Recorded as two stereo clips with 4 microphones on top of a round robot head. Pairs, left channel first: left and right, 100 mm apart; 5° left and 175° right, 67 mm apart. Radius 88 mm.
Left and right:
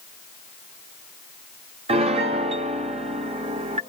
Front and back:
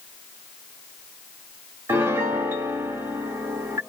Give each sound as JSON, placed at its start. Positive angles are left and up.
{"t": 1.9, "sound": "a piano", "azimuth_deg": -115, "distance_m": 1.0}